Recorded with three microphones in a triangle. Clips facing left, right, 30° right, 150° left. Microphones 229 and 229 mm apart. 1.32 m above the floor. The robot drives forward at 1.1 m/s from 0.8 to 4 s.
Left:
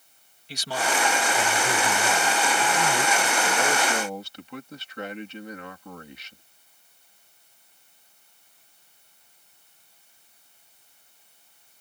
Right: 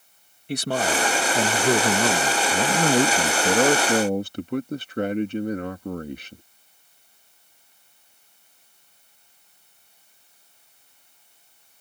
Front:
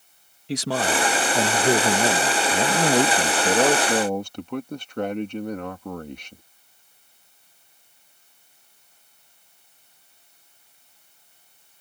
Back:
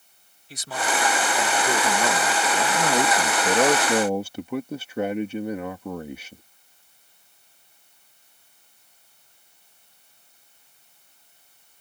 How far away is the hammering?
I don't hear hammering.